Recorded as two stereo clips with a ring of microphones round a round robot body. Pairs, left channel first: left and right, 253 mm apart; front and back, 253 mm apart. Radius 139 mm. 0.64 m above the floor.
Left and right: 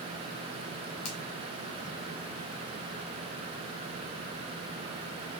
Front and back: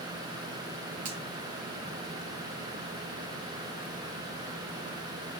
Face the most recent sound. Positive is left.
turn(degrees=115)